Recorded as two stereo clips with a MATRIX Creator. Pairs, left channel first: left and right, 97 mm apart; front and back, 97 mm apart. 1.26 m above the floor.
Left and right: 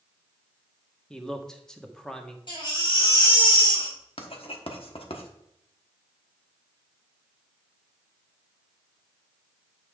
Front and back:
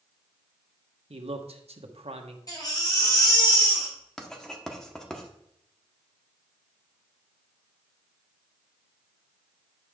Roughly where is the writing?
Left.